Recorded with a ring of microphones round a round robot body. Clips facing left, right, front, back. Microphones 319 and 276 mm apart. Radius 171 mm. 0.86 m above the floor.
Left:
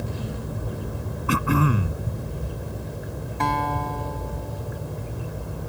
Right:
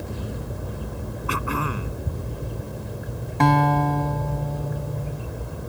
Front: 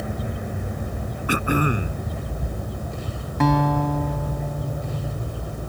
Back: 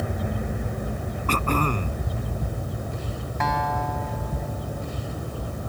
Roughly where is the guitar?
Ahead right.